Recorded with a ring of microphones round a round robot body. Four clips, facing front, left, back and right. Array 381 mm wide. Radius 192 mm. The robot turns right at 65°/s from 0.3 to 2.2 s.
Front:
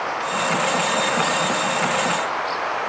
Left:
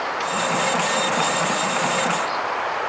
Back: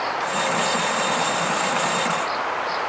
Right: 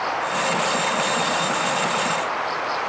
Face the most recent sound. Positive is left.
No sound to turn to.